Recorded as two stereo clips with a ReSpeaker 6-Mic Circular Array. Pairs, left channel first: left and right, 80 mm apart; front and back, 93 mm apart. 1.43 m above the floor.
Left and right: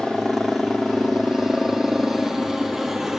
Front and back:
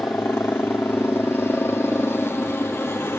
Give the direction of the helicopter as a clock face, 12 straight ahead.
12 o'clock.